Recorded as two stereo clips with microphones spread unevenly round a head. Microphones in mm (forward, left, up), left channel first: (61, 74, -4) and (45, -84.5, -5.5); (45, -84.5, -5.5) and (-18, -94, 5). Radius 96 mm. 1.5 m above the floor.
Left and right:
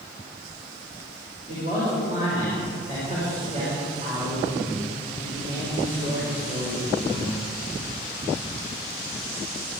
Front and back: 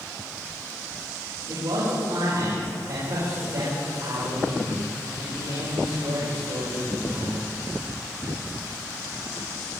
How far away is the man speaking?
About 7 m.